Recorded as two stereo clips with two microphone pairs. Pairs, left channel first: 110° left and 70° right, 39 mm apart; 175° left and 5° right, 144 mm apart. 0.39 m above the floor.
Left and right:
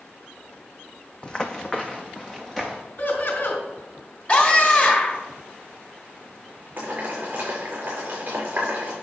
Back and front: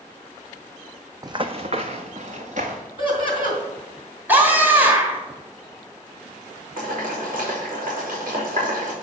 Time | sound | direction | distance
1.2 | running footsteps | 50° left | 0.7 m
3.0 | laughter | 125° left | 3.5 m
4.3 | a scream | 65° left | 1.9 m
6.8 | boiling | 25° right | 5 m